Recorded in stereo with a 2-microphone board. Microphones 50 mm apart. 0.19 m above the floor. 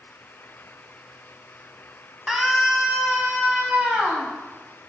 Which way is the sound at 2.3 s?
10° right (ahead or behind).